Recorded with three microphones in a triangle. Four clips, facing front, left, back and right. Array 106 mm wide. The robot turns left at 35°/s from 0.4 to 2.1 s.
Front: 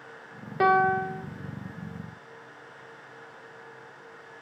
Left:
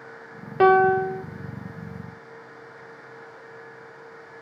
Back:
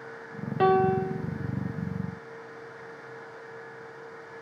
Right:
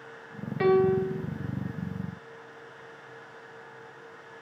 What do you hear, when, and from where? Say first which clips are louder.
0.6 s a piano: left 6 dB, even; 85° left, 0.9 m; by 1.2 s 60° left, 0.9 m